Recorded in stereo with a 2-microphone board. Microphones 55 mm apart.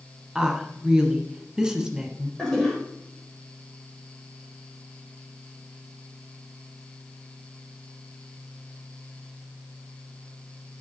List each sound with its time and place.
0.3 s a woman speaking: 10° right (ahead or behind), 1.5 m
2.4 s a toilet flushing: 5° left (ahead or behind), 6.5 m